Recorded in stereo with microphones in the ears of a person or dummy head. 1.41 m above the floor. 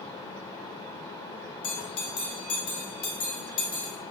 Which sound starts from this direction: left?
A bell, at 1.6 s.